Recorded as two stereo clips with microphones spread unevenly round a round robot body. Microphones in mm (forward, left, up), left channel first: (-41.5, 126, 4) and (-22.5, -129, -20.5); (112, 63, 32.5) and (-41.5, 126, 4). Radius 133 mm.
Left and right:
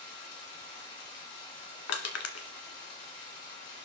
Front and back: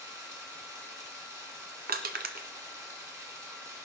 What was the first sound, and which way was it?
Running water, 85° left.